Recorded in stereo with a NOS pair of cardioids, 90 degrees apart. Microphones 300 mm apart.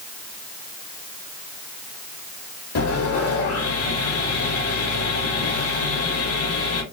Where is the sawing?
55° left, 1.8 m.